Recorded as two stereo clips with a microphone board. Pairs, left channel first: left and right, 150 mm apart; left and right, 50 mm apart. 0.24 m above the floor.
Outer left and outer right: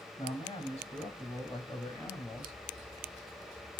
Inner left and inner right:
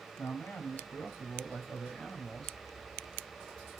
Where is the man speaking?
45° left (ahead or behind), 2.5 m; by 2.6 s 15° left (ahead or behind), 1.6 m.